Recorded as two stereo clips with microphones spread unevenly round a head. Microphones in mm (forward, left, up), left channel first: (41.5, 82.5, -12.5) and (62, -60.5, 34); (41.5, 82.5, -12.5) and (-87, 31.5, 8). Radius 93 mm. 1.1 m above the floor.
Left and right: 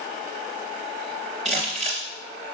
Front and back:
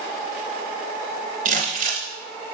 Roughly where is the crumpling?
Behind.